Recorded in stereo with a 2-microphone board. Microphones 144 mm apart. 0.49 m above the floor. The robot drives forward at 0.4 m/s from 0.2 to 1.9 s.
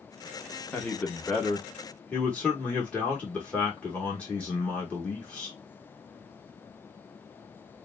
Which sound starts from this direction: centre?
A man speaking, at 0.7 s.